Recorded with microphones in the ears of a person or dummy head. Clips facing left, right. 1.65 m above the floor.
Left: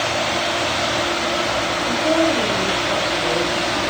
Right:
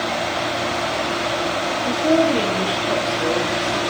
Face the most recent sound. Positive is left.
turn(degrees=-35)  # may be behind; listen again after turning